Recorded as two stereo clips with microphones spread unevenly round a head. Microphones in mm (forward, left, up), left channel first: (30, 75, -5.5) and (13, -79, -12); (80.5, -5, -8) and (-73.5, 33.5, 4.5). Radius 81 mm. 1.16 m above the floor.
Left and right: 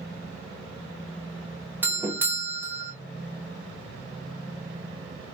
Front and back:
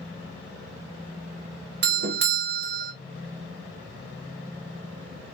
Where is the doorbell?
175° right, 1.0 m.